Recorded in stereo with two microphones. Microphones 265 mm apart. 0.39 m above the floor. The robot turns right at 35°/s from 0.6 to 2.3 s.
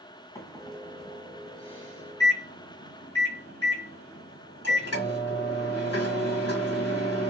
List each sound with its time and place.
0.3 s a microwave: 10° left (ahead or behind), 1.9 m; by 7.3 s 65° left (ahead or behind), 1.9 m